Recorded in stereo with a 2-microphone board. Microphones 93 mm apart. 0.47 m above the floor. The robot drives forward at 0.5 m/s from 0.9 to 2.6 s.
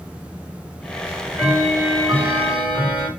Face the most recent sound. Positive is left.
turn(degrees=-15)  # may be behind; listen again after turning